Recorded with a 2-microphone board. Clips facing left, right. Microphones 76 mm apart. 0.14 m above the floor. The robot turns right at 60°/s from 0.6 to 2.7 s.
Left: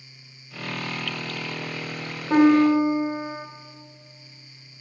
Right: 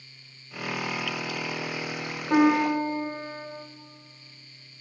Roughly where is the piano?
Centre.